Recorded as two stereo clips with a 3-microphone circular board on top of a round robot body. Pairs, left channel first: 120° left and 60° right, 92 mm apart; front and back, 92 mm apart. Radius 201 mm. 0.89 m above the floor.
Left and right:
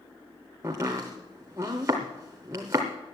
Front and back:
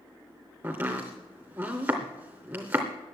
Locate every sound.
0.6 s chopping: 125° right, 0.6 m